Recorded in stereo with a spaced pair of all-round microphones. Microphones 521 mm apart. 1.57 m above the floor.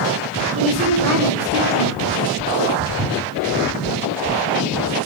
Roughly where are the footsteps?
Right.